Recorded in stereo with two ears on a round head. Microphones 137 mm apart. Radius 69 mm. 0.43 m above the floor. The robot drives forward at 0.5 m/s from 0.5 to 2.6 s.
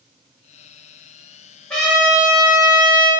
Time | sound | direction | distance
1.7 | a trumpet | 5° left (ahead or behind) | 1.3 m